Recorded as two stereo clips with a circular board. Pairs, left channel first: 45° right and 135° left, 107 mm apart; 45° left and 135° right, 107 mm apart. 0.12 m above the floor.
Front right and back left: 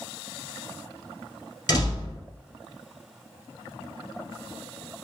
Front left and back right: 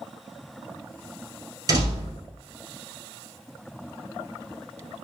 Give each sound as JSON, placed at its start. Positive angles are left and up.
{"t": 1.7, "sound": "a door slam", "azimuth_deg": -95, "distance_m": 1.9}